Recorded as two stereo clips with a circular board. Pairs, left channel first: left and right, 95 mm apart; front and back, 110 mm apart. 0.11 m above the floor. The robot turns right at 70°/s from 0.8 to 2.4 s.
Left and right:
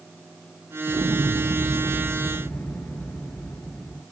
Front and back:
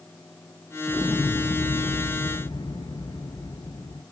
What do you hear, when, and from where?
0.9 s an explosion: 80° right, 0.6 m; by 4.0 s 25° left, 0.6 m